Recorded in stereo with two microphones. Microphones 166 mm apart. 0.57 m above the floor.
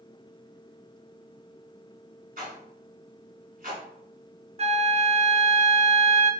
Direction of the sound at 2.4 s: 65° right (ahead or behind).